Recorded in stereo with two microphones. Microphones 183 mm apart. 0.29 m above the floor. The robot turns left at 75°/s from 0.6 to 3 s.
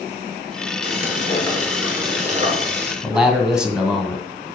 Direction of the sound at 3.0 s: 5° right (ahead or behind).